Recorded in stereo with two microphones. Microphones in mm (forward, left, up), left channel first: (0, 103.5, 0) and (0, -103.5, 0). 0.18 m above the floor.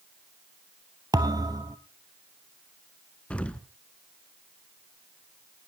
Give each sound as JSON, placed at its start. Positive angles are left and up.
{"t": 1.1, "sound": "a thud", "side_deg": -20, "distance_m": 1.2}
{"t": 3.3, "sound": "an explosion", "side_deg": 5, "distance_m": 0.9}